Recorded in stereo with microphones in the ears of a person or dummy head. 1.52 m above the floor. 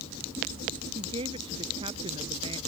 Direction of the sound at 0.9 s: 30° right (ahead or behind).